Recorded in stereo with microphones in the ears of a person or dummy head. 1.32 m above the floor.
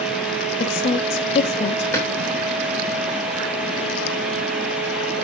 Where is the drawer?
15° left (ahead or behind), 3 m.